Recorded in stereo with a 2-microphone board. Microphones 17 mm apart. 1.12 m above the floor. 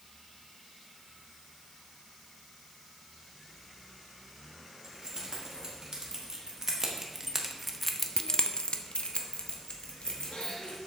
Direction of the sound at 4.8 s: 40° right (ahead or behind).